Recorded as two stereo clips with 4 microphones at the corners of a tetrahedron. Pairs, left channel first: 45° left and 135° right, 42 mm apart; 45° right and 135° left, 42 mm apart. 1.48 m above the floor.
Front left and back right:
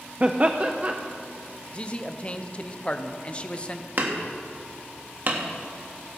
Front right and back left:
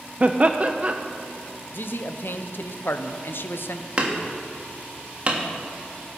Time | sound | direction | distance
0.2 | laughter | straight behind | 0.5 m
1.7 | a man speaking | 15° right | 0.7 m
4.0 | hammering | 165° right | 1.5 m